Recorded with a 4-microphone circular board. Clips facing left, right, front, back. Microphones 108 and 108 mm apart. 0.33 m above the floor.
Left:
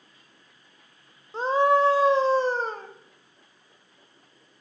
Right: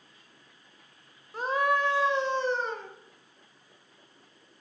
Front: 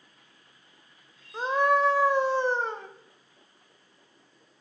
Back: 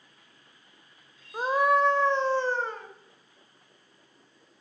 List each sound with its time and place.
1.3 s a scream: 115° left, 1.2 m; by 2.9 s 60° left, 1.6 m